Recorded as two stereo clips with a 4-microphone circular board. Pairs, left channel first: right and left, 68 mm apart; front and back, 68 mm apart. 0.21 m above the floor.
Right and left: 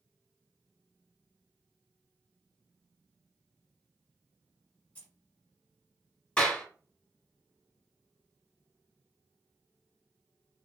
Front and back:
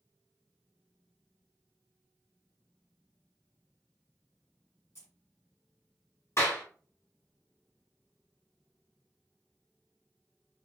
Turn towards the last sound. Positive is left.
turn(degrees=-20)